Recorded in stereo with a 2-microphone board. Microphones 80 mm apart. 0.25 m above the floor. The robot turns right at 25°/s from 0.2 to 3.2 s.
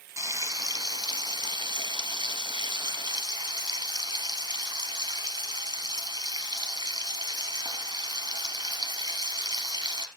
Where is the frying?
135° right, 1.6 m; by 10.1 s 60° right, 1.6 m.